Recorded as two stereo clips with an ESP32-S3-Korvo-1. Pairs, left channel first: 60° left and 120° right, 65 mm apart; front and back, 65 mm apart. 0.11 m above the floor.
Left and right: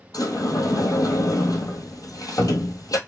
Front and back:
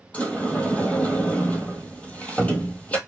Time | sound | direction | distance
0.1 | a sliding door | 65° left | 1.2 m